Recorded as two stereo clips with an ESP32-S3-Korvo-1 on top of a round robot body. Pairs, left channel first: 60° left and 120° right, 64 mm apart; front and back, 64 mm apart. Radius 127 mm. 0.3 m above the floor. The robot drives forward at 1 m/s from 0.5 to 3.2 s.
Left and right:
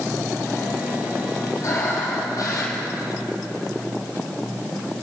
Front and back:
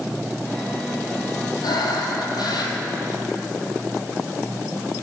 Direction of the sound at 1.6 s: 15° left.